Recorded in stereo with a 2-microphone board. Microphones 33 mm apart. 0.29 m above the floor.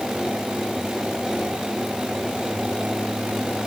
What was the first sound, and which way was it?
Only background noise.